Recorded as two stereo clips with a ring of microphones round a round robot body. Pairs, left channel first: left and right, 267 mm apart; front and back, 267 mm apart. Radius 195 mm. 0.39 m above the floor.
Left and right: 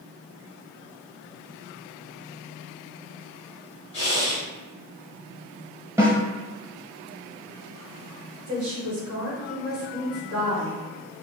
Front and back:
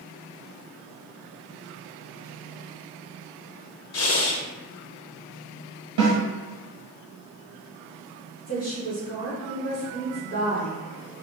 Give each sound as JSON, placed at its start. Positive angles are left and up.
{"t": 3.9, "sound": "breathing", "azimuth_deg": 25, "distance_m": 0.6}
{"t": 6.0, "sound": "a snare drum", "azimuth_deg": -170, "distance_m": 1.1}
{"t": 8.5, "sound": "a woman speaking", "azimuth_deg": -60, "distance_m": 1.9}